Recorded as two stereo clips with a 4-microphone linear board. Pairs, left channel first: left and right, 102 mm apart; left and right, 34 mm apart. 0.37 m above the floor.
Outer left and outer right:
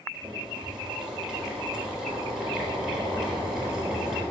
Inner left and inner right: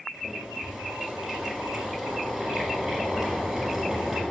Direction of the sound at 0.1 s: 5° right (ahead or behind).